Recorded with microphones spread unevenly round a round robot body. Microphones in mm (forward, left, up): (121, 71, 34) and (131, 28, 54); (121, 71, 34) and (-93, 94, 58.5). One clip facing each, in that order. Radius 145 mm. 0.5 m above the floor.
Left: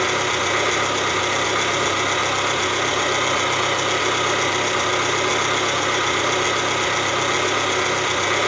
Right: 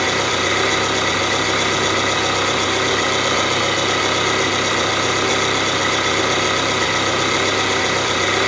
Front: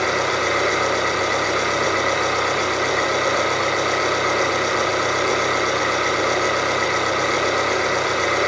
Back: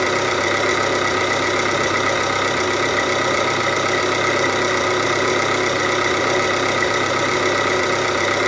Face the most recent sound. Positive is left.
turn(degrees=-130)